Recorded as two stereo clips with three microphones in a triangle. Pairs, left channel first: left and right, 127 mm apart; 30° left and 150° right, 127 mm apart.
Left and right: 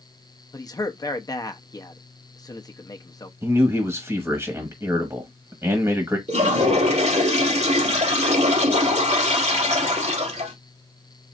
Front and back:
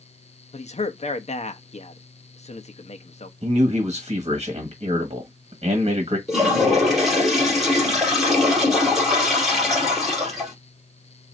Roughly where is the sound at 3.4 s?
Behind right.